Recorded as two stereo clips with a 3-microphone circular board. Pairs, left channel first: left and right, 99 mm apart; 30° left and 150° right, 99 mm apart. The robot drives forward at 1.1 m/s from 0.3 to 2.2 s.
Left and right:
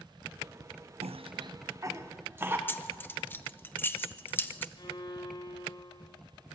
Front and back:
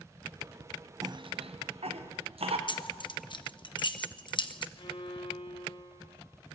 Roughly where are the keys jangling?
Ahead left.